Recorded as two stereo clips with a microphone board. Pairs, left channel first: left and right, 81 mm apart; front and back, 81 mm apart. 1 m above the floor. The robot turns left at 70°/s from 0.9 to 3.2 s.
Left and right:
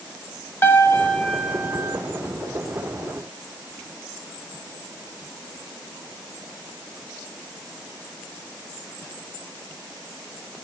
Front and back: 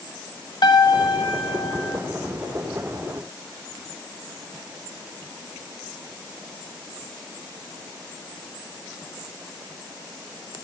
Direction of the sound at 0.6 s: 30° left.